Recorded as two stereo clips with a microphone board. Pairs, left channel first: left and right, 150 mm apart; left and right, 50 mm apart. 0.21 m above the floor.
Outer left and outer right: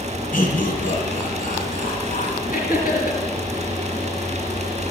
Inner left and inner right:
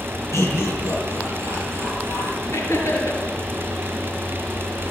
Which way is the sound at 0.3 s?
65° left (ahead or behind).